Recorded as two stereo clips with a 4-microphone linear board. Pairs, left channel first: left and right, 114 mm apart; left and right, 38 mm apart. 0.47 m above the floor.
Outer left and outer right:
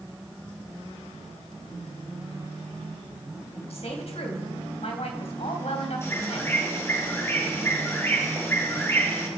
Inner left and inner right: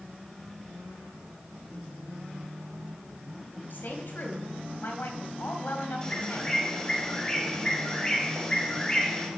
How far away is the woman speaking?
About 3 m.